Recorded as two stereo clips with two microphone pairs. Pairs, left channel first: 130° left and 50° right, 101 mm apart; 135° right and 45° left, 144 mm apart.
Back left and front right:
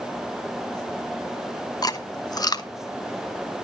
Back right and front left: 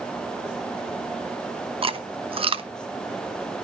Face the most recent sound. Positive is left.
turn(degrees=90)